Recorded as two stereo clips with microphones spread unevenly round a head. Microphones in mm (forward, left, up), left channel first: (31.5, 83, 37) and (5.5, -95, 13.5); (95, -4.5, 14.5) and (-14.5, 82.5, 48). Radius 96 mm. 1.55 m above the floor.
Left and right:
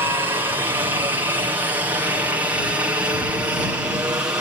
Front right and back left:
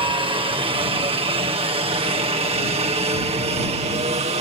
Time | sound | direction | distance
0.0 | a helicopter | 165° right | ?